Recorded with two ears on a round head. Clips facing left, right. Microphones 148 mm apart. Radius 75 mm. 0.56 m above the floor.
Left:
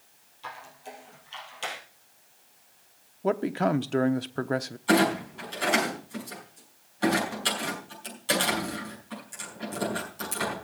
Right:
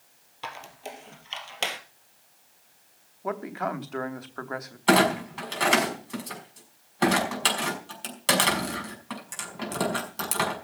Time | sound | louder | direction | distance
0.4 | a squeak | right 3 dB | 75° right (ahead or behind) | 2.5 m
3.2 | a man speaking | left 6 dB | 35° left (ahead or behind) | 0.8 m
4.9 | a clunk | right 2 dB | 75° right (ahead or behind) | 5 m